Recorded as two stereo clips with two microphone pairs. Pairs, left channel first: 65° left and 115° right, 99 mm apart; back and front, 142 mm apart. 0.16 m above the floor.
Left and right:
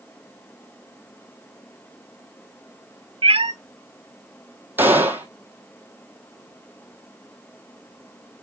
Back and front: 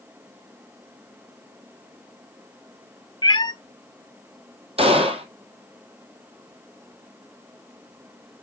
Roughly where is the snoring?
I don't hear snoring.